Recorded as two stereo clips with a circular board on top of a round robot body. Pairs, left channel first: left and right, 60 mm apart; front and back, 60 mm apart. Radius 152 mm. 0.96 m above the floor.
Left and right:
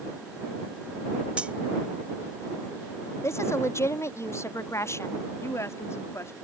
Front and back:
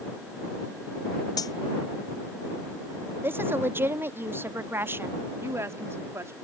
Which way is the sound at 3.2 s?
130° left.